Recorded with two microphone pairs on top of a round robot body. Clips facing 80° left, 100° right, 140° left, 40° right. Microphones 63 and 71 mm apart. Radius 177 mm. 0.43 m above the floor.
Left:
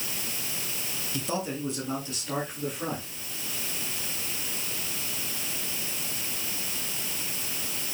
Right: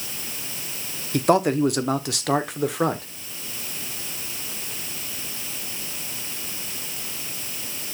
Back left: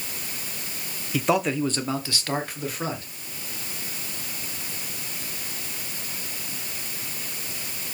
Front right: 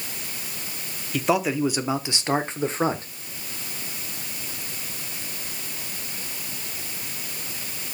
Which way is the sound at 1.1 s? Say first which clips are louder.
Right 13 dB, even; 125° right.